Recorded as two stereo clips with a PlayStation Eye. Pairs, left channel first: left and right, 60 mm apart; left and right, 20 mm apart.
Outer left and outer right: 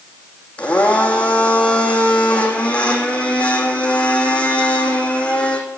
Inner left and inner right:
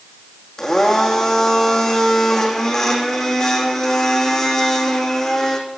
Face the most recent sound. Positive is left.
turn(degrees=20)  # may be behind; listen again after turning